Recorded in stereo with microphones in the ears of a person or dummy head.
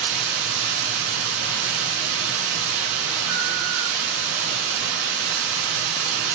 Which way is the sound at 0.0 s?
60° right (ahead or behind).